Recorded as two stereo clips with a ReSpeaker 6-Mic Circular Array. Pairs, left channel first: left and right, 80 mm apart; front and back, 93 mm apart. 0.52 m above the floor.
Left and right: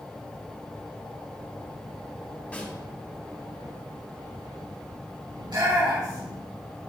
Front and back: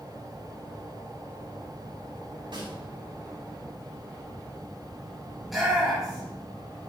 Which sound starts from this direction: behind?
A snare drum, at 2.5 s.